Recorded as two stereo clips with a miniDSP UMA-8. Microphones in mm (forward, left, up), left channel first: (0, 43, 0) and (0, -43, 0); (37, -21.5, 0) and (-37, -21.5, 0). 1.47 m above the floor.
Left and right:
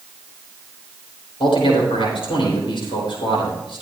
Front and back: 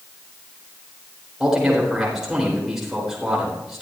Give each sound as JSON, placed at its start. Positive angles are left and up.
{"t": 1.4, "sound": "a man speaking", "azimuth_deg": 95, "distance_m": 6.0}